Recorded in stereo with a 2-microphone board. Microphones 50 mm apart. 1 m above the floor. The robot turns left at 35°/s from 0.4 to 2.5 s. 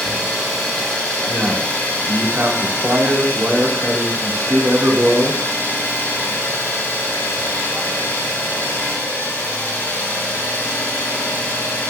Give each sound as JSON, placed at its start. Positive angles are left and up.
{"t": 0.0, "sound": "an engine running", "azimuth_deg": -170, "distance_m": 4.0}
{"t": 1.3, "sound": "a man speaking", "azimuth_deg": -40, "distance_m": 1.5}